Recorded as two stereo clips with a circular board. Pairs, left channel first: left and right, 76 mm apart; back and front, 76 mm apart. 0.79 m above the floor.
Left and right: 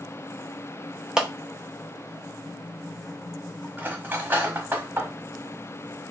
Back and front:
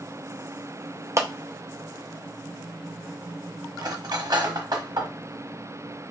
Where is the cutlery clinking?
25° right, 1.1 m.